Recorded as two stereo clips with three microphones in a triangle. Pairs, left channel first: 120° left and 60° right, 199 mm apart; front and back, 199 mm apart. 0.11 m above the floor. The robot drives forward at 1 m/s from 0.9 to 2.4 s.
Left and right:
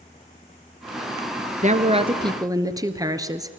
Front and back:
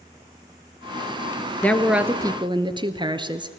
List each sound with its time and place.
1.6 s a woman speaking: 75° right, 1.3 m; by 3.5 s 125° right, 1.4 m